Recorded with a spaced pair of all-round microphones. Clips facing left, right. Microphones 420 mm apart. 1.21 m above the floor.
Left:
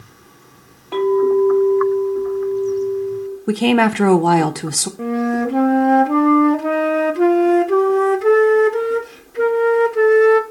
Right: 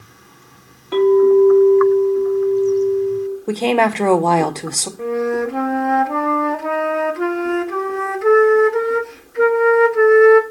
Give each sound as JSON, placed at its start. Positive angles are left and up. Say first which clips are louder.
{"t": 0.9, "sound": "a clink", "louder": "right 4 dB", "side_deg": -30, "distance_m": 1.6}
{"t": 3.5, "sound": "a woman speaking", "louder": "left 4 dB", "side_deg": 30, "distance_m": 0.5}
{"t": 5.0, "sound": "a flute", "louder": "even", "side_deg": 50, "distance_m": 0.5}